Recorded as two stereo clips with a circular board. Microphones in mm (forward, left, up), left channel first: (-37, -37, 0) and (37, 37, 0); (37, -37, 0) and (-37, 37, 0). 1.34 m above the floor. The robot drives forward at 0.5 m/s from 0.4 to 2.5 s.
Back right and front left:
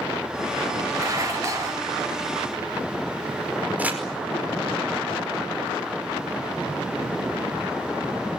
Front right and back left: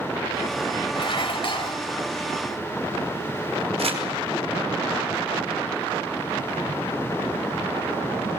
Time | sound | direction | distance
0.9 | dishes clattering | 15° right | 4.5 m
3.8 | crumpling | 120° left | 4.5 m